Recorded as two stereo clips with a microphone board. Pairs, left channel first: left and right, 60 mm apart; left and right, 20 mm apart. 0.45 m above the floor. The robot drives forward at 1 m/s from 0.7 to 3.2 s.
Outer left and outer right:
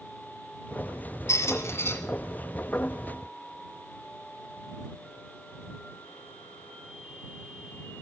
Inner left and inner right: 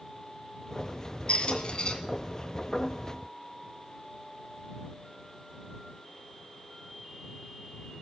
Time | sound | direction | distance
1.3 | a squeak | 60° left (ahead or behind) | 1.6 m